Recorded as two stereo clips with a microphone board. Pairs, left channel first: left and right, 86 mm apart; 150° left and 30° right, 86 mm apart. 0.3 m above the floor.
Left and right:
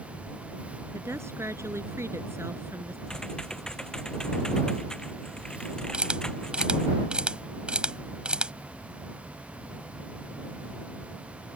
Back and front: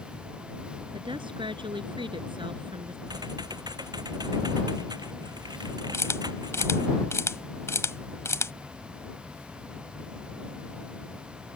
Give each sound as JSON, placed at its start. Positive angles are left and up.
{"t": 0.9, "sound": "a woman speaking", "azimuth_deg": -35}
{"t": 3.1, "sound": "typing on a keyboard", "azimuth_deg": 10}
{"t": 5.9, "sound": "a camera shutter", "azimuth_deg": -165}